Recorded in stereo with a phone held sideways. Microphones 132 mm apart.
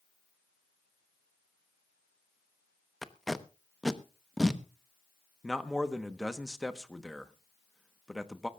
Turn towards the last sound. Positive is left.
turn(degrees=0)  # may be behind; listen again after turning